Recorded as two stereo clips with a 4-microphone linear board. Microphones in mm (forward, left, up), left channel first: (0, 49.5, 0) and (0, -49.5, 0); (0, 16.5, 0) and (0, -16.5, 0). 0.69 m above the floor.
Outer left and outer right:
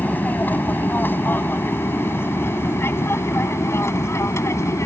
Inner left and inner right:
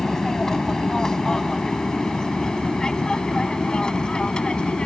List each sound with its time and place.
0.0 s an aircraft: 15° left (ahead or behind); by 4.9 s 30° left (ahead or behind)